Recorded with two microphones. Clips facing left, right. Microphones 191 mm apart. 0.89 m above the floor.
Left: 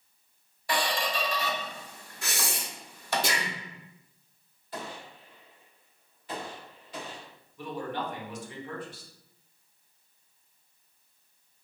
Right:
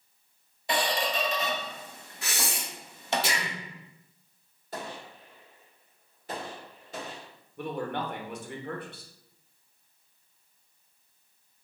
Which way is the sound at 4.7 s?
45° right (ahead or behind).